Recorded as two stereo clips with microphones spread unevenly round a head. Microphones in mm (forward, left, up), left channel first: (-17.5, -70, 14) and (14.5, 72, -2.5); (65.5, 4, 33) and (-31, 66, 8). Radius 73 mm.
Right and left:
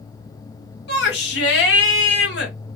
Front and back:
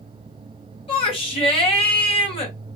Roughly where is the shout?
Right.